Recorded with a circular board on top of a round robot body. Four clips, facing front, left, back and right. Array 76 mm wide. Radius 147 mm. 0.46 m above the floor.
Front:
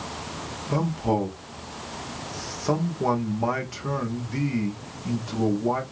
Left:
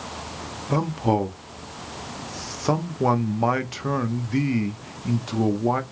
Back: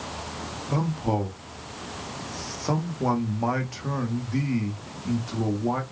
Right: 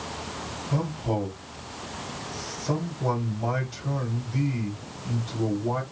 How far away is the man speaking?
About 1.6 m.